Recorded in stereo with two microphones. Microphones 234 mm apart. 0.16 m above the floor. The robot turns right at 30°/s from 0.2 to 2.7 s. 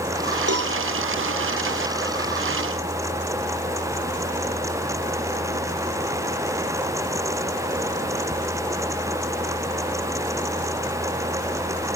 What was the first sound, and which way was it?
A cowbell, 80° right.